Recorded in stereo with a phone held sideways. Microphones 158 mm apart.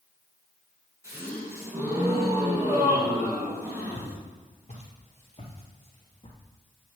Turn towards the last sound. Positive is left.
turn(degrees=35)  # may be behind; listen again after turning